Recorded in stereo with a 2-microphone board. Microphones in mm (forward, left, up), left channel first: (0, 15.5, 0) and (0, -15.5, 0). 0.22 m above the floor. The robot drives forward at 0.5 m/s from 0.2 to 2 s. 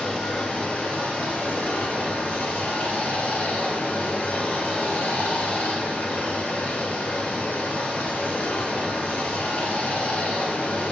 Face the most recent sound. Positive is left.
turn(degrees=65)  # may be behind; listen again after turning